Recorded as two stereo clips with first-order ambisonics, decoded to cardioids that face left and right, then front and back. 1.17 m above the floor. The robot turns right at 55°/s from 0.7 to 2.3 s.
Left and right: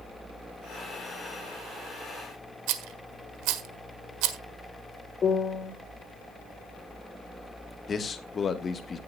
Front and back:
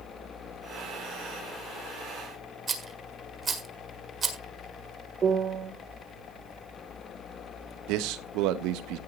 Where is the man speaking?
155° left, 1.4 m.